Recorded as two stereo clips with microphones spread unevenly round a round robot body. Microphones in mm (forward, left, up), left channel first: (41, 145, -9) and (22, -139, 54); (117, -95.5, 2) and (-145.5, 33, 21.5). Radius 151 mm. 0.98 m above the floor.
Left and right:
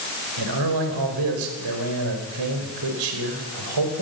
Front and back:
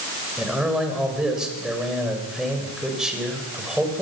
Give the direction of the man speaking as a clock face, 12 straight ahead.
4 o'clock.